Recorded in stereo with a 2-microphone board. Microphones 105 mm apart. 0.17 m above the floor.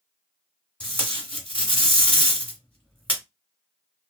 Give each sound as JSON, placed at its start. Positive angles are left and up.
{"t": 0.8, "sound": "tape being pulled", "side_deg": 15, "distance_m": 1.4}